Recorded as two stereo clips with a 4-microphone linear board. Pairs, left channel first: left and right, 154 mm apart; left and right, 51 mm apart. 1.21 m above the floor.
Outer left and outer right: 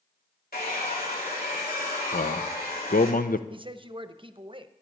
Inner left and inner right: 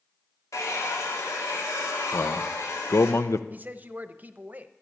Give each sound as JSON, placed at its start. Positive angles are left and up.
{"t": 0.5, "sound": "a hair dryer", "side_deg": 80, "distance_m": 3.0}
{"t": 2.1, "sound": "a man speaking", "side_deg": 65, "distance_m": 0.7}
{"t": 3.5, "sound": "a man speaking", "side_deg": -35, "distance_m": 0.7}